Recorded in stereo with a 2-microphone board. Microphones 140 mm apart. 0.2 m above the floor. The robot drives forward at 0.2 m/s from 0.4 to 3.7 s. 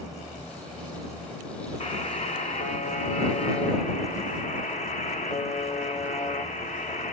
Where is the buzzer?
50° left (ahead or behind), 0.6 m; by 7.1 s 55° left (ahead or behind), 0.6 m.